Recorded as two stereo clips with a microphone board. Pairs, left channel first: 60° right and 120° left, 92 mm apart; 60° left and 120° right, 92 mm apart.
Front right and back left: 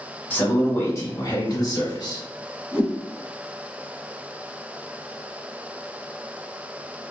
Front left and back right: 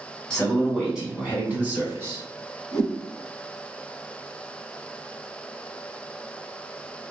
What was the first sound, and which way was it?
A man speaking, 10° right.